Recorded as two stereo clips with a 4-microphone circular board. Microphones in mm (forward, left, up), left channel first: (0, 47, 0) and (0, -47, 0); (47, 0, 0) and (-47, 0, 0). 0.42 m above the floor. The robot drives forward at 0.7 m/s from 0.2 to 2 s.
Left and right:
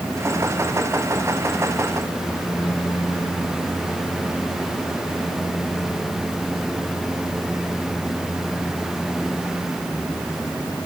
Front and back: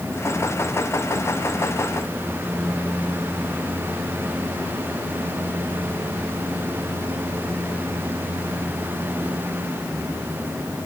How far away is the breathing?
I don't hear breathing.